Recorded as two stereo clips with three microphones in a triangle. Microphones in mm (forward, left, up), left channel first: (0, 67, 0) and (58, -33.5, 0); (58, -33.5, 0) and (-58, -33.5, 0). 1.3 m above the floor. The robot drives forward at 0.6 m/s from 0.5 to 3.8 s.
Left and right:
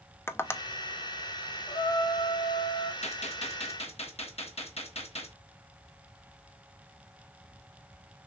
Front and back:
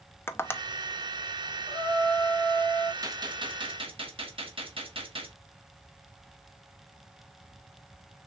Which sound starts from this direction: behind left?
A gunshot, at 3.0 s.